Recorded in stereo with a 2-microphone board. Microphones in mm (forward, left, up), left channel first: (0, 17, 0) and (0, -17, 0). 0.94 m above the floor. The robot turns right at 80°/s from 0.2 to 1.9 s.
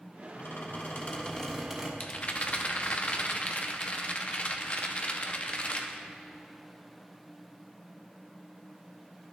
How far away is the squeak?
About 1.4 m.